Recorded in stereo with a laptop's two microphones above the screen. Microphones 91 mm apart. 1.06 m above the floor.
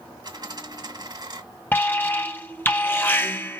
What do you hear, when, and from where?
0.2 s a dropped coin: 55° right (ahead or behind), 1.8 m
1.7 s an alarm: 20° left (ahead or behind), 0.6 m